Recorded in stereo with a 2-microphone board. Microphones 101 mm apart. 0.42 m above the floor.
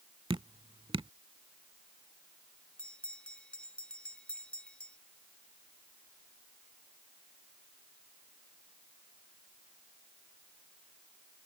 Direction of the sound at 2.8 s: 10° left (ahead or behind).